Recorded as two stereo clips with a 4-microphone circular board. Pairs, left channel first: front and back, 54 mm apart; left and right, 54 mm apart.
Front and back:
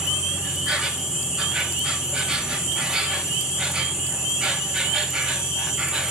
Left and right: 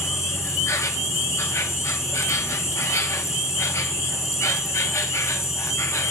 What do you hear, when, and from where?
0.0 s an insect: 105° left, 2 m